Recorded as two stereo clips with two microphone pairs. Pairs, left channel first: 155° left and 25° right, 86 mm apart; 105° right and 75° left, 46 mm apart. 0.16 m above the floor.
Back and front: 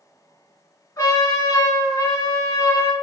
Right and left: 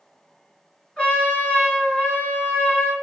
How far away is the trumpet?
About 2 m.